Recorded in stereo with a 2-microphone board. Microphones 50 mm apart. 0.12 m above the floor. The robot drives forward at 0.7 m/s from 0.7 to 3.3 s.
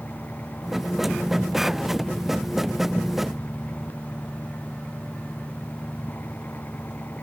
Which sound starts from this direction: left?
An engine running, at 0.0 s.